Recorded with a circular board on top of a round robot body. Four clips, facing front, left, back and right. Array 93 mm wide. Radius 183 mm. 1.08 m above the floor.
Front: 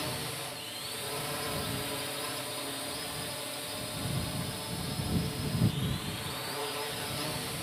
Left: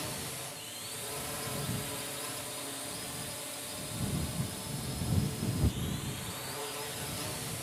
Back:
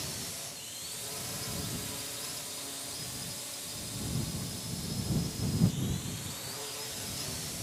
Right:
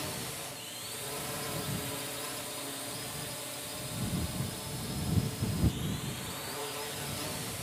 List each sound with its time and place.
0.0 s a drone: 5° right